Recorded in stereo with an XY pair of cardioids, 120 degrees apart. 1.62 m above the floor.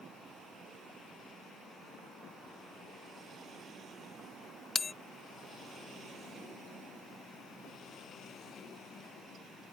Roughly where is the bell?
Ahead left.